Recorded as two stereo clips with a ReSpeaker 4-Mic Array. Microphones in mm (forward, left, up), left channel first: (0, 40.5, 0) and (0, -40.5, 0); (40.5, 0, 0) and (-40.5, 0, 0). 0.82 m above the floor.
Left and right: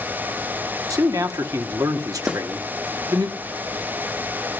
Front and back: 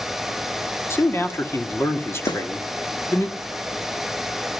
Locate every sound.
0.9 s a man speaking: 55° right, 1.7 m
2.3 s a snare drum: 15° right, 2 m